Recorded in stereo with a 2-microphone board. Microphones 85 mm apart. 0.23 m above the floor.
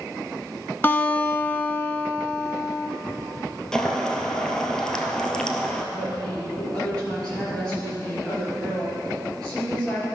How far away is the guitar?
About 0.8 m.